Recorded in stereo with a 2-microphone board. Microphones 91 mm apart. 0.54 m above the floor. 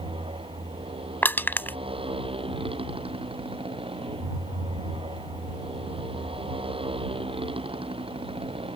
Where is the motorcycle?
80° right; by 8.8 s 85° right.